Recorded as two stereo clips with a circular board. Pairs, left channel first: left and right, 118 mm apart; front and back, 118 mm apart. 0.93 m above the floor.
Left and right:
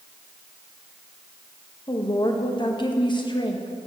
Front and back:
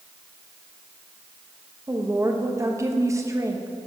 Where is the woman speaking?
125° left, 1.0 m.